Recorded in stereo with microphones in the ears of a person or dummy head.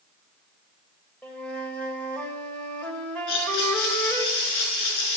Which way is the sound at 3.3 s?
70° left (ahead or behind).